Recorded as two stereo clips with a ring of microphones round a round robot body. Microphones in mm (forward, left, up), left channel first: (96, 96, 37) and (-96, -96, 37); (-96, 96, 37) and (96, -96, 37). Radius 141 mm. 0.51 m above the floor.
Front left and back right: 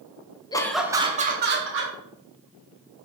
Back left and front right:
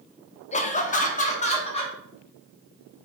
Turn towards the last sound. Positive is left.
turn(degrees=-160)